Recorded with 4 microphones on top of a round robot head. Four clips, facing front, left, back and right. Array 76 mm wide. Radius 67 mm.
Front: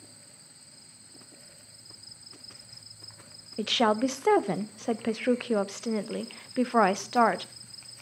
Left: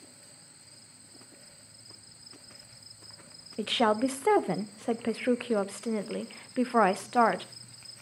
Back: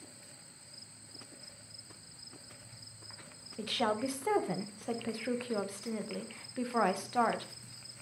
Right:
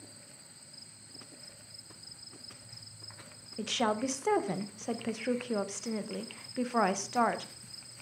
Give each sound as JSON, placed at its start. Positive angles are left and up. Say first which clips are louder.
{"t": 3.6, "sound": "a woman speaking", "louder": "left 5 dB, front 8 dB", "azimuth_deg": 35, "distance_m": 0.7}